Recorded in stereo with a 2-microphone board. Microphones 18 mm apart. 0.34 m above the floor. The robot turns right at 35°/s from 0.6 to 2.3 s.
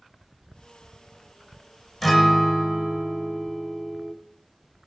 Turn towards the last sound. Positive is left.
turn(degrees=-5)  # may be behind; listen again after turning